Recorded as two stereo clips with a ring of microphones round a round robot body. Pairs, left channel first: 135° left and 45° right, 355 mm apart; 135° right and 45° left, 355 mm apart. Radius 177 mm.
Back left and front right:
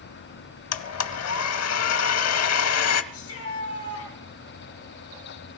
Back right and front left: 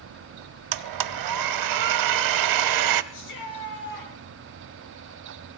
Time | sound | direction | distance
0.7 | a blender | 85° left | 0.7 m
3.1 | a shout | 175° right | 6.5 m